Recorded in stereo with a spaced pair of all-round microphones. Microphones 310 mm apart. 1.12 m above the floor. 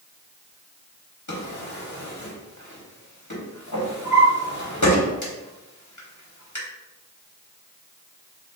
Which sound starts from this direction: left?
A drawer, at 1.3 s.